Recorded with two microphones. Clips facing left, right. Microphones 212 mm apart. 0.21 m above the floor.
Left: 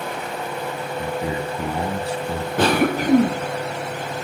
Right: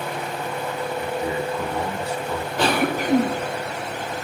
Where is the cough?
50° left (ahead or behind), 1.6 m.